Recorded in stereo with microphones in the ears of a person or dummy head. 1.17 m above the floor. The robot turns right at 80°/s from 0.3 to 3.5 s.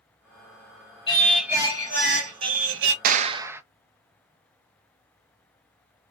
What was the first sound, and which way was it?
Singing, 150° left.